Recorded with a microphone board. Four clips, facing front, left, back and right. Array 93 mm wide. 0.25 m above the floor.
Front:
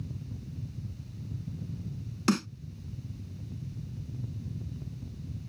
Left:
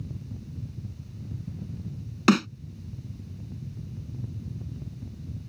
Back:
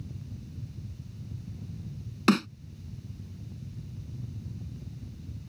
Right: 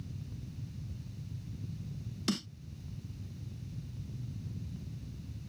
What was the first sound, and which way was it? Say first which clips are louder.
A snare drum: left 15 dB, back 4 dB; 110° left.